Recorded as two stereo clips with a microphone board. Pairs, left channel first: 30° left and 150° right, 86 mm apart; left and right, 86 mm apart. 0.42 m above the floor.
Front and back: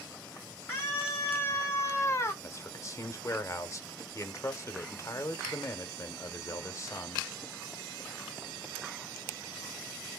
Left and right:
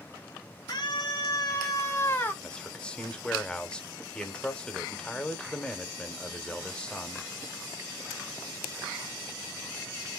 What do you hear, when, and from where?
0.7 s a scream: 90° left, 2.5 m; by 2.3 s 40° left, 1.3 m
2.4 s a man speaking: 20° left, 1.0 m